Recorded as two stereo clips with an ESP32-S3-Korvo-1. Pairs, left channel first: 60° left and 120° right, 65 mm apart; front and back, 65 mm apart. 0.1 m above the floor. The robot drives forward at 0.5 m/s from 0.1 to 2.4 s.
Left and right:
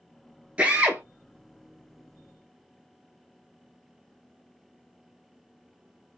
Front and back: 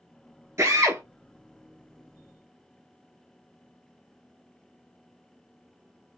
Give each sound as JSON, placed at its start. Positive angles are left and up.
{"t": 0.6, "sound": "a drill", "azimuth_deg": 175, "distance_m": 0.8}